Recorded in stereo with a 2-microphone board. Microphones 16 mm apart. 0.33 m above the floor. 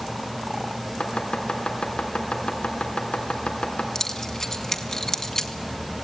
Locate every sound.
1.0 s chopping: 70° left (ahead or behind), 3.5 m
4.0 s keys jangling: 25° left (ahead or behind), 2 m